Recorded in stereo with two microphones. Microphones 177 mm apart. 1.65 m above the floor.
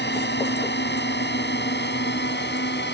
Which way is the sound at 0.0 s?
75° left (ahead or behind).